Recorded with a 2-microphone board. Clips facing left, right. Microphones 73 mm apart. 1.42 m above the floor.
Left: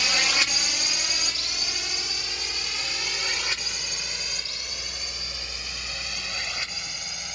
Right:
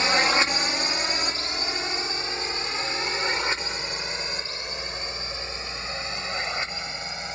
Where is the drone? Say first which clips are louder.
Right 5 dB; 30° right (ahead or behind); by 7.4 s 25° right (ahead or behind).